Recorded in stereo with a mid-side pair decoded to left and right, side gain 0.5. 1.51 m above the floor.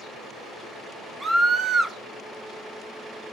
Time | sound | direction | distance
1.2 | a scream | 25° right | 1.3 m